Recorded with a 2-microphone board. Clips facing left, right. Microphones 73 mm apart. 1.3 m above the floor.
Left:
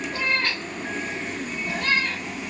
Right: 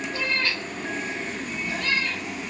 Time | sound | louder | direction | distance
0.1 | a cat meowing | left 2 dB | 50° left (ahead or behind) | 0.9 m